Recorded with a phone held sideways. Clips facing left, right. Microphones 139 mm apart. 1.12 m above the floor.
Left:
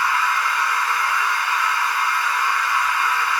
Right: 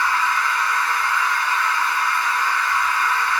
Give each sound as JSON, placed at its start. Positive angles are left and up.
{"t": 0.0, "sound": "a machine running", "side_deg": 10, "distance_m": 0.9}